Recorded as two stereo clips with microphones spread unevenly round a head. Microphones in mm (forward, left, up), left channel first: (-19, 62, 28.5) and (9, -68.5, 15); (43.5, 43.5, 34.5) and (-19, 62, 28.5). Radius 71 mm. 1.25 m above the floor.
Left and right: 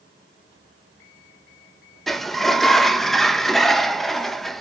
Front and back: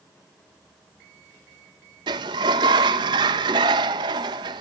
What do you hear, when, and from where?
2.1 s a sliding door: 170° right, 0.9 m